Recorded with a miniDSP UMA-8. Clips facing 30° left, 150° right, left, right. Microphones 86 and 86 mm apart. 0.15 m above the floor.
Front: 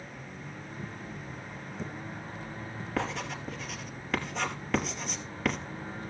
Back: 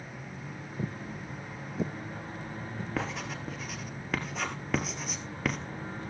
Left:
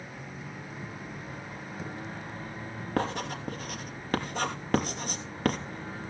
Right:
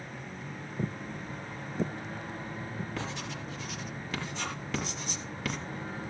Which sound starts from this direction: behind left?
Writing, at 3.0 s.